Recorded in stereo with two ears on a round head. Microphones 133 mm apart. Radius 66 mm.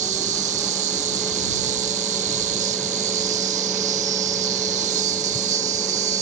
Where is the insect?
50° right (ahead or behind).